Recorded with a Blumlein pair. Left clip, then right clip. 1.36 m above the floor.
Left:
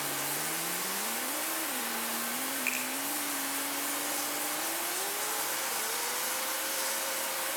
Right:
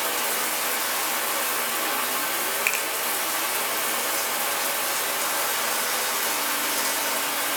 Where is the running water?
30° right, 1.7 m.